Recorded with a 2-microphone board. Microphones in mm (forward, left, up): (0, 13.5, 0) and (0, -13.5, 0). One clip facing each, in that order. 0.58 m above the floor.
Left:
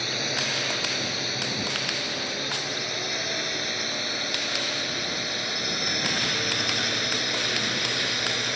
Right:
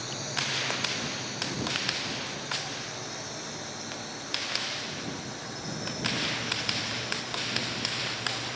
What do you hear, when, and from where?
0.0 s a drone: 45° left (ahead or behind); by 8.6 s 60° left (ahead or behind)